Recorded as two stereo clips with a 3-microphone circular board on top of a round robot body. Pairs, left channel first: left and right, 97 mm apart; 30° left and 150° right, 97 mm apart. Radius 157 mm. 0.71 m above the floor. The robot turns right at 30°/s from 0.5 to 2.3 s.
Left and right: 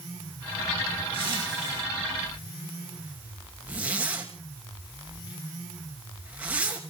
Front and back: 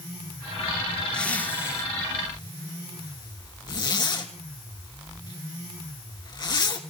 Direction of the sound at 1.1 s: 50° right.